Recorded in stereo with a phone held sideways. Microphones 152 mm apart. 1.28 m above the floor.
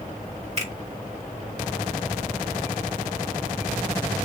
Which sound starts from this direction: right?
A finger snap, at 0.6 s.